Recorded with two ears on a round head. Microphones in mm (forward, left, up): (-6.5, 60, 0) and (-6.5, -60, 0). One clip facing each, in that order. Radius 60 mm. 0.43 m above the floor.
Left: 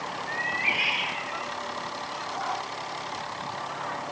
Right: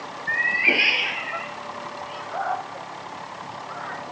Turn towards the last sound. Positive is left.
turn(degrees=-55)  # may be behind; listen again after turning